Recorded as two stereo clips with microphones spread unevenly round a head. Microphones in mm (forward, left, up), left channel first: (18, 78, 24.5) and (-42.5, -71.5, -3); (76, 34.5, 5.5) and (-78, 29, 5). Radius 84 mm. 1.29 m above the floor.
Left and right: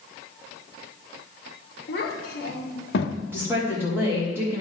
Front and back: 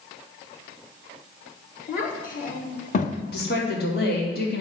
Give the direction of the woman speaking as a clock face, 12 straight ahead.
1 o'clock.